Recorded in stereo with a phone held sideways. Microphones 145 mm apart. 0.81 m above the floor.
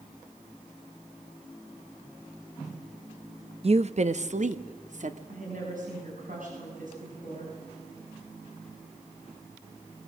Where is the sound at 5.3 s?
65° right (ahead or behind), 6 m.